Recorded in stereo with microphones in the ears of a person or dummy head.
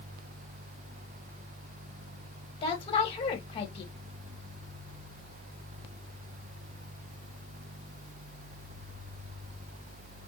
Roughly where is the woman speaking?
Left.